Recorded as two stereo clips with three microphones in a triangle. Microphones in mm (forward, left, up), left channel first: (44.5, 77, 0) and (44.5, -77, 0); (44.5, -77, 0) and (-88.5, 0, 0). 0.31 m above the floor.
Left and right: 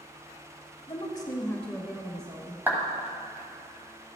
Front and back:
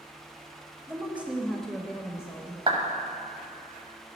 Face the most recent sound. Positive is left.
turn(degrees=-165)